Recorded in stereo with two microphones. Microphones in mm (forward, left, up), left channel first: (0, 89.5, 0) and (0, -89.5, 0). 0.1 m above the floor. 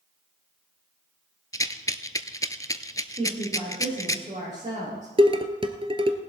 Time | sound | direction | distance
1.5 | a rattle | 20° left (ahead or behind) | 0.6 m
3.2 | a woman speaking | 40° right (ahead or behind) | 6.5 m
5.2 | dishes clattering | 30° right (ahead or behind) | 1.2 m